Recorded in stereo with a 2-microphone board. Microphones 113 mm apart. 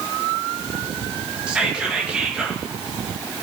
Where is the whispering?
10° right (ahead or behind), 2 m.